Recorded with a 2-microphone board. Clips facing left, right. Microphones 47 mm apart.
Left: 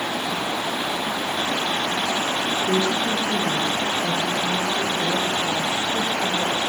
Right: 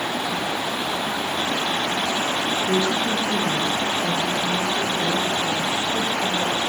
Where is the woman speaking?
25° left (ahead or behind), 6 m; by 6.6 s 30° left (ahead or behind), 10.5 m.